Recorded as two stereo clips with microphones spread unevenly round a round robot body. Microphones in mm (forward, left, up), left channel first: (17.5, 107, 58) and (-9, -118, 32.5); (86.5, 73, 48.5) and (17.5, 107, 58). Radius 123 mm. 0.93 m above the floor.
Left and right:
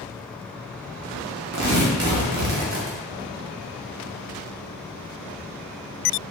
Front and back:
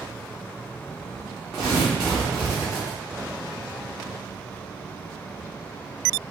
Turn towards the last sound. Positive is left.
turn(degrees=-130)